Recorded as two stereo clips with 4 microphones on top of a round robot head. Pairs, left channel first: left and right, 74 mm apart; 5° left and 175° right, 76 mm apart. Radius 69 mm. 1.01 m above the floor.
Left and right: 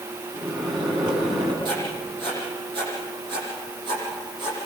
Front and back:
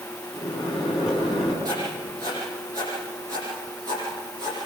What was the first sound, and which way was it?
A microwave, 90° right.